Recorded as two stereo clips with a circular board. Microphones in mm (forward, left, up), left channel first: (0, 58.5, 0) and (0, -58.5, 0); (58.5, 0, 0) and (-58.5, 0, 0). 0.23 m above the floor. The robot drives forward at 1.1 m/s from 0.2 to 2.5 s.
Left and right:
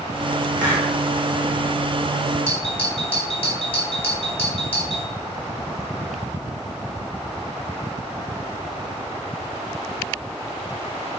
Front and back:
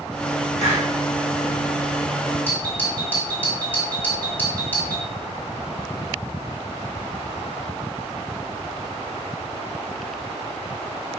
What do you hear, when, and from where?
0.6 s a hiss: 15° left, 3.5 m; by 0.9 s 20° left, 3 m
2.5 s a doorbell: 70° left, 2.5 m